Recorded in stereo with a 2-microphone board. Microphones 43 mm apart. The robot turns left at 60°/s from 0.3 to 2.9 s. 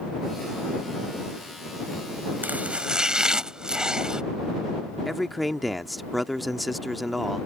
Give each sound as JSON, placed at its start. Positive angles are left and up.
{"t": 2.4, "sound": "chopping", "side_deg": -45}
{"t": 5.0, "sound": "a man speaking", "side_deg": 0}